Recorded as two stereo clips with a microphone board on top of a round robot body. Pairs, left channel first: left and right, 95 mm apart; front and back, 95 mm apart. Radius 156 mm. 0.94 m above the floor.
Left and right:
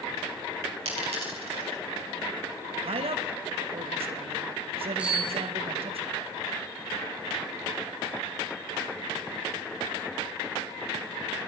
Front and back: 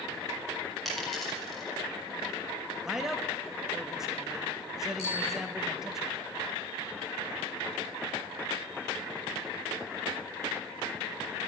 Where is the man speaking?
95° right, 1.4 m.